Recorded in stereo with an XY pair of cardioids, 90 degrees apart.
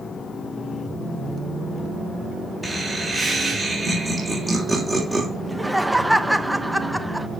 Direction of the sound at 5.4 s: 5° right.